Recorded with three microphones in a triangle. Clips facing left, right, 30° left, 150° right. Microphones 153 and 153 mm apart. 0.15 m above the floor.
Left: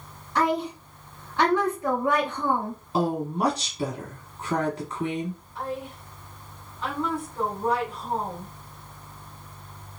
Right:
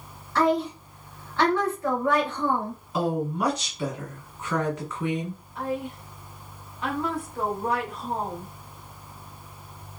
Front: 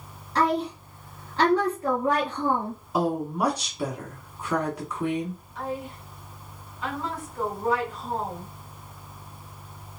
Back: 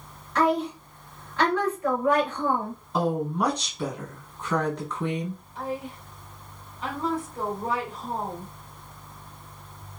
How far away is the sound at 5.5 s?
About 1.8 m.